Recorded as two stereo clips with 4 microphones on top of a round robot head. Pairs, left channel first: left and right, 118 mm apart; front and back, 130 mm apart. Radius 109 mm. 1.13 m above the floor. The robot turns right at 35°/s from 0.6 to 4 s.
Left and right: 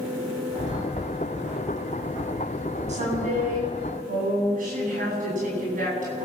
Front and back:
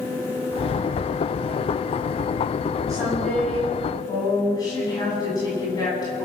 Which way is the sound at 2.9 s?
110° right.